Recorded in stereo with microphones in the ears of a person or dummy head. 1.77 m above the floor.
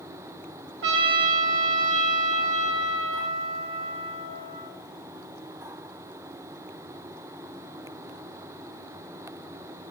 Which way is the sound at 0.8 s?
70° right (ahead or behind).